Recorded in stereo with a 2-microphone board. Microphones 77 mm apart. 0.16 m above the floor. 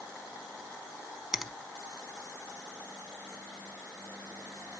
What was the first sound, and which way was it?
A finger snap, 5° right (ahead or behind).